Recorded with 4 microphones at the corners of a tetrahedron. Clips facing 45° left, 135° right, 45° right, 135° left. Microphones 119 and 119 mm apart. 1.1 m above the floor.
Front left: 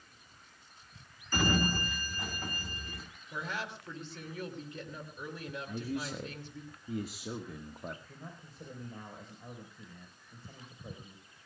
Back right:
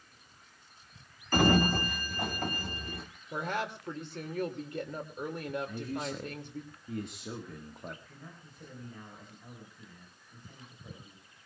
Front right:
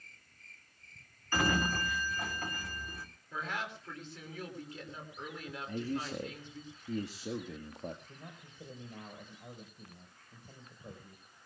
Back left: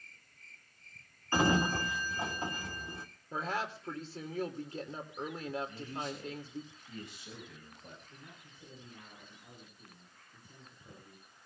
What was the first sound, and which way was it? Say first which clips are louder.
A sliding door: back right 5 dB, back left 3 dB; 160° right.